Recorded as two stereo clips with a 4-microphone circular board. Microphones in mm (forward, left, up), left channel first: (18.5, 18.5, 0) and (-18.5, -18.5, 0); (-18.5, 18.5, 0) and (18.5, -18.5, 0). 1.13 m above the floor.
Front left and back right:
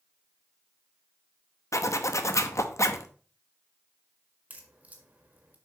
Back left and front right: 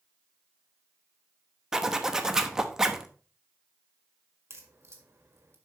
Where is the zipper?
35° left, 0.8 m.